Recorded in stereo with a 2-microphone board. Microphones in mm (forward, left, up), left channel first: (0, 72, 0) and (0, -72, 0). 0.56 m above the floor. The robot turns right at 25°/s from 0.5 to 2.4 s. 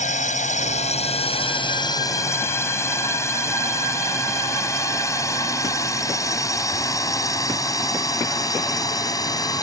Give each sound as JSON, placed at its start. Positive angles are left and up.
{"t": 0.0, "sound": "a drone", "side_deg": 55}